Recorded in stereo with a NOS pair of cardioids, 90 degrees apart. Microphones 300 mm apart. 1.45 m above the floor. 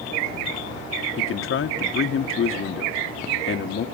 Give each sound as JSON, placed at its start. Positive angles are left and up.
{"t": 1.2, "sound": "a man speaking", "azimuth_deg": 45, "distance_m": 1.6}